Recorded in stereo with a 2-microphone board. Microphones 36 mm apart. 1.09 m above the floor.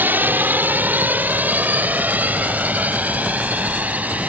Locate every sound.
0.0 s a drone: 65° right (ahead or behind); by 4.3 s 45° right (ahead or behind)